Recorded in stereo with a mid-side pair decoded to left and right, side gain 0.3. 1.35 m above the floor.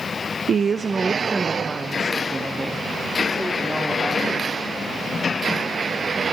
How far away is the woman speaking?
About 0.5 m.